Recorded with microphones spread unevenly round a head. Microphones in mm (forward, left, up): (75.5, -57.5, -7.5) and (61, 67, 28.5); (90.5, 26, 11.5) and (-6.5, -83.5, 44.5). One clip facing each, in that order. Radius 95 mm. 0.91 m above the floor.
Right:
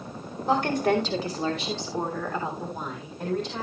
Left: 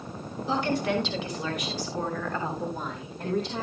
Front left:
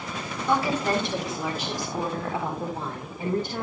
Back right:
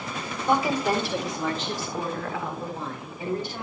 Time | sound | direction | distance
0.5 | a woman speaking | 60° right | 3 m